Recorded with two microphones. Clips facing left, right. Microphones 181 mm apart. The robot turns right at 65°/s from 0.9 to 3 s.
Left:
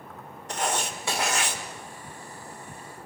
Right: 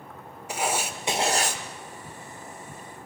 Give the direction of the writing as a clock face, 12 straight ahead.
6 o'clock.